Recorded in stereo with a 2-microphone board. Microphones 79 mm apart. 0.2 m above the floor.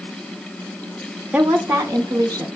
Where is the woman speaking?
15° right (ahead or behind), 1.5 m; by 2.5 s 45° right (ahead or behind), 1.8 m.